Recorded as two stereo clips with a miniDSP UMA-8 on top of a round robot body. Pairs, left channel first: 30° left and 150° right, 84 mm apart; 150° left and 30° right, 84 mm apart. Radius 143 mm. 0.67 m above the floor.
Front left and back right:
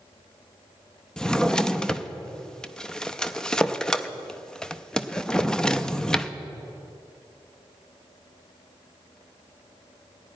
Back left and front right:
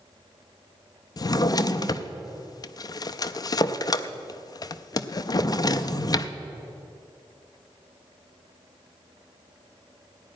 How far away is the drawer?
About 0.5 m.